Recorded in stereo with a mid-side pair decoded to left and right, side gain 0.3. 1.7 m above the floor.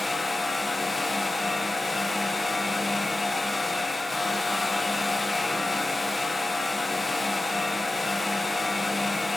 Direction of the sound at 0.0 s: 25° left.